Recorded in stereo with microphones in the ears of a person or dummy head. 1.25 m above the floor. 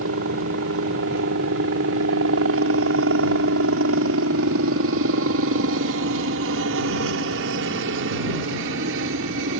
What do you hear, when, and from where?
0.0 s a helicopter: 70° right (ahead or behind); by 9.6 s 65° right (ahead or behind)